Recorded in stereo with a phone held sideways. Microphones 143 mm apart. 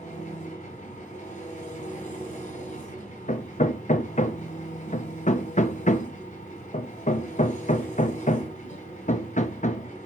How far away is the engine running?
About 2.5 m.